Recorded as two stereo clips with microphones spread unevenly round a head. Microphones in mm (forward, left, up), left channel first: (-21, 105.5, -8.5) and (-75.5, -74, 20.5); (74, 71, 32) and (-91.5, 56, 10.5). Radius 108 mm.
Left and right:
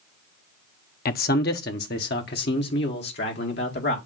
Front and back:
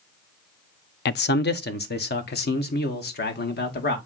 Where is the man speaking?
30° left, 0.6 m.